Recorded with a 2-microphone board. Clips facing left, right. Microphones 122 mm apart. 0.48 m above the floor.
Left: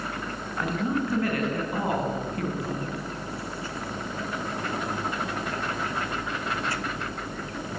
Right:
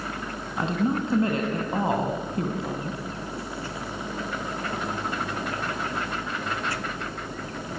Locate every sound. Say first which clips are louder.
0.6 s a woman speaking: right 2 dB; 25° right (ahead or behind), 4 m